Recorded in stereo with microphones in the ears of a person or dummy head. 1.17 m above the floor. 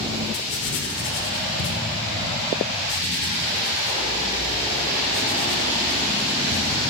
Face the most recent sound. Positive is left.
turn(degrees=85)